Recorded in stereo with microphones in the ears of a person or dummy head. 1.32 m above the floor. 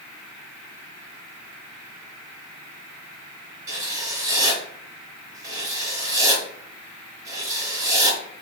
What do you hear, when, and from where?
3.7 s writing: 25° right (ahead or behind), 3 m